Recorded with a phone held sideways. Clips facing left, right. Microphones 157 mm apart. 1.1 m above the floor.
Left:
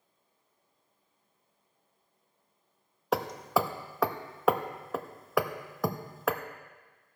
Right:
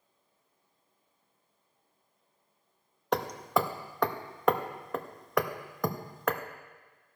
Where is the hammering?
5° left (ahead or behind), 0.6 m.